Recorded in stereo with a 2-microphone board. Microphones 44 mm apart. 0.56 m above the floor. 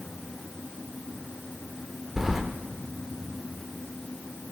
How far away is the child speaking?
No child speaking in this recording.